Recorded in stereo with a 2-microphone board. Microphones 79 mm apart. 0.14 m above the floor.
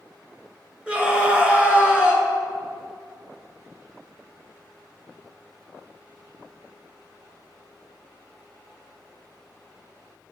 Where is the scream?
15° right (ahead or behind), 1.8 m.